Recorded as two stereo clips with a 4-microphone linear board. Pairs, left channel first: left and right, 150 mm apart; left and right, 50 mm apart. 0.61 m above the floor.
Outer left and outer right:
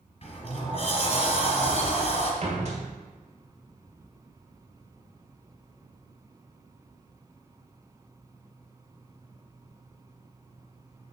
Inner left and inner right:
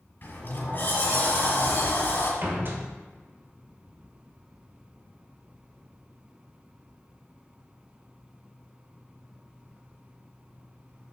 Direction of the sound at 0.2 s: 45° left (ahead or behind).